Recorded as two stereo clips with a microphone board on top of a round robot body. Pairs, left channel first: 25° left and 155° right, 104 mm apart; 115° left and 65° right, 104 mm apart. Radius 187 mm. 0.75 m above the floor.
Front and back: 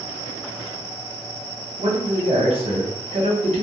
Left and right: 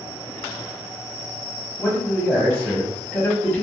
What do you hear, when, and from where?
1.8 s a man speaking: 160° right, 0.9 m